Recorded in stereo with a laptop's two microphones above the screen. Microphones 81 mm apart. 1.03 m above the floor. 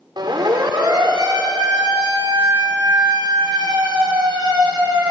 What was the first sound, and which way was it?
A siren, 60° right (ahead or behind).